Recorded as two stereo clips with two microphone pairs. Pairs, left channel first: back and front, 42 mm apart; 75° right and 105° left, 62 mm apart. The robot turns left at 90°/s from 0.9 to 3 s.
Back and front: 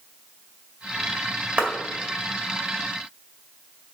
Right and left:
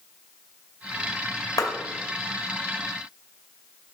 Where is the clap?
70° right, 2 m; by 1.7 s 80° right, 2 m.